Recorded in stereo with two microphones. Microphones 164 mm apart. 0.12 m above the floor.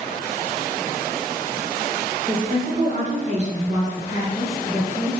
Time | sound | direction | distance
2.3 | a woman speaking | 55° right (ahead or behind) | 3 m